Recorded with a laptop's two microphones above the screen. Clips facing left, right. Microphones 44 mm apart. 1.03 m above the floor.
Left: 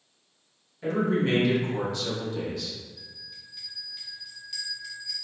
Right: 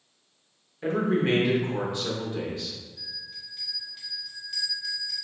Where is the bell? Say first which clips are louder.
Right 5 dB; 5° right (ahead or behind), 1.8 m.